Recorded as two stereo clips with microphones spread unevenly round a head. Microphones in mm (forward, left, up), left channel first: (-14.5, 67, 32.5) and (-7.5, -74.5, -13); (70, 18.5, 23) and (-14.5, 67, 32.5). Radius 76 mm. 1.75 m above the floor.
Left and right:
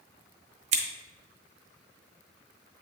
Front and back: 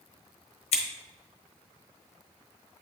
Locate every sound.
0.7 s scissors: 30° right, 1.2 m